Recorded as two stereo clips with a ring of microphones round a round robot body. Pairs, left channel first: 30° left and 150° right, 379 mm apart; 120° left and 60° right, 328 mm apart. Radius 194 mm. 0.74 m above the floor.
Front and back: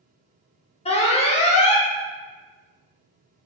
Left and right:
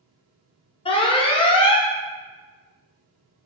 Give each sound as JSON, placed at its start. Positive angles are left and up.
{"t": 0.8, "sound": "an alarm", "azimuth_deg": 75, "distance_m": 0.6}